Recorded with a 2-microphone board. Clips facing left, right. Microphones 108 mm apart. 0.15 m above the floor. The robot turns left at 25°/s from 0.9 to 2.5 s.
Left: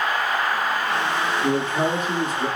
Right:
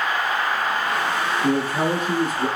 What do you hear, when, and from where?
1.4 s a man speaking: 5° left (ahead or behind), 1.3 m; by 2.5 s 15° right (ahead or behind), 1.3 m